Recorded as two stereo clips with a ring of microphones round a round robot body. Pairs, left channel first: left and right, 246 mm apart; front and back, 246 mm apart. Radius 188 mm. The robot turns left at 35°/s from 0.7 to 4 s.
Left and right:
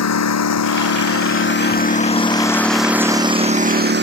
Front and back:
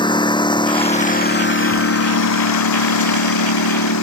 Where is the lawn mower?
75° left; by 4.0 s 45° right.